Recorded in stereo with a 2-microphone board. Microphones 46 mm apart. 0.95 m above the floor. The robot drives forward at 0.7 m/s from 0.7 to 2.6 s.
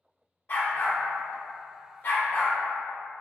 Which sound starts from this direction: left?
A dog barking, at 0.5 s.